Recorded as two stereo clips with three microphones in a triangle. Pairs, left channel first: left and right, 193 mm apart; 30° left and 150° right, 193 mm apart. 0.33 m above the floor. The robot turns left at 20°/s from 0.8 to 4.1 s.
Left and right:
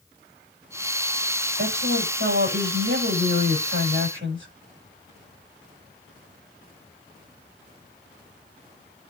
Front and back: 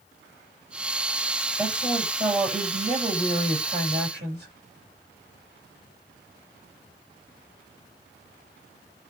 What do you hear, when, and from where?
1.6 s a woman speaking: 65° right, 9.5 m; by 4.5 s 115° right, 9.5 m